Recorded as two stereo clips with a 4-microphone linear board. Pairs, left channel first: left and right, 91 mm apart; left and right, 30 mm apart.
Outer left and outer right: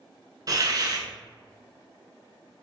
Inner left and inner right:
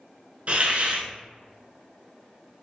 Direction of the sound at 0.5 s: 50° right (ahead or behind).